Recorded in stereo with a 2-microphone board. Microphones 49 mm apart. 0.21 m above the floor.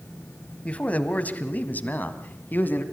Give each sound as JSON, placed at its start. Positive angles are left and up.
{"t": 0.7, "sound": "a man speaking", "side_deg": 25, "distance_m": 1.7}